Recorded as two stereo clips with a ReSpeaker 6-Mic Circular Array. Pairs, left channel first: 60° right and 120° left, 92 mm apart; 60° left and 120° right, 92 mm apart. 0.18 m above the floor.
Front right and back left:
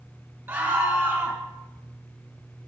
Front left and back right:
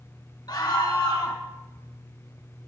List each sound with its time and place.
0.5 s a scream: 65° left, 2.5 m